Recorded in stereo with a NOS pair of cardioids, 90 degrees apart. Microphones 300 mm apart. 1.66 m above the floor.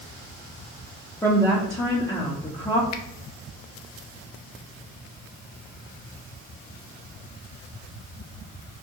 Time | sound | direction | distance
1.2 | a woman speaking | 10° left | 1.1 m
2.9 | a finger snap | 65° left | 0.5 m